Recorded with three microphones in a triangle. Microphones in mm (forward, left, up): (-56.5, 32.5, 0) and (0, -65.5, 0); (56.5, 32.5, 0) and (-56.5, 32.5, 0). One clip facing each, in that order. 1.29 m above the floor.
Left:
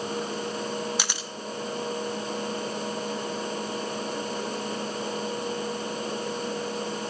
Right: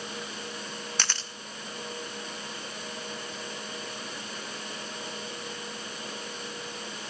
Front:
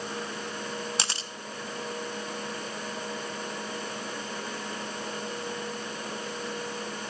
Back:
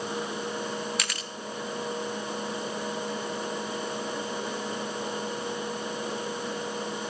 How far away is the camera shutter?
About 0.6 m.